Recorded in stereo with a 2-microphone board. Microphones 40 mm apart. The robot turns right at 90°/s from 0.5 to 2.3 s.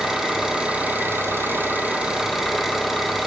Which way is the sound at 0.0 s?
170° right.